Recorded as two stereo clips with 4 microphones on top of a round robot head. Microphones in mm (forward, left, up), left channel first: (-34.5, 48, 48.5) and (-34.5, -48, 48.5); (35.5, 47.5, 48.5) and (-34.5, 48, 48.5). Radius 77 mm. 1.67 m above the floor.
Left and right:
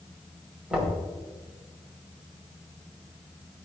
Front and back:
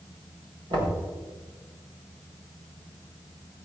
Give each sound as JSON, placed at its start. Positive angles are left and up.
{"t": 0.7, "sound": "knocking", "azimuth_deg": -175, "distance_m": 5.0}